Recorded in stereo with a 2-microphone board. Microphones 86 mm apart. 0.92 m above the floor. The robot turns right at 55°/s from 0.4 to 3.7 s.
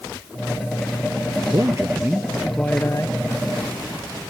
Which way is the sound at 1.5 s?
50° right.